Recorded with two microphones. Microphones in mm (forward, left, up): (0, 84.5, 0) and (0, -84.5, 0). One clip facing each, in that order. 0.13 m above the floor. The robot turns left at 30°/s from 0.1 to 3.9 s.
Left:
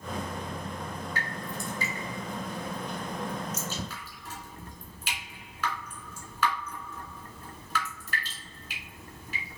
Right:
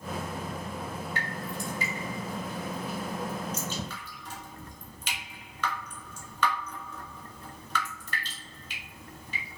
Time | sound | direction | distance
1.1 | dripping | 20° right (ahead or behind) | 1.7 m